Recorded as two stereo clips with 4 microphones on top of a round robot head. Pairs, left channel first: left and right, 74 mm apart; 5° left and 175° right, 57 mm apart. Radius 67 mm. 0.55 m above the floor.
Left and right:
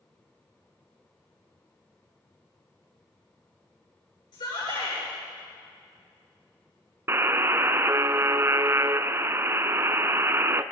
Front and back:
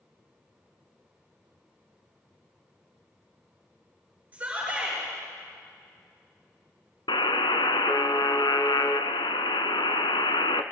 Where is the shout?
120° left, 9 m.